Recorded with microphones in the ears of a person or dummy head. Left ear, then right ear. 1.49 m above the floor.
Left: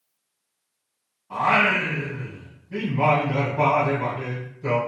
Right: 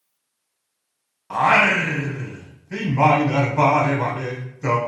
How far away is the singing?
About 0.6 m.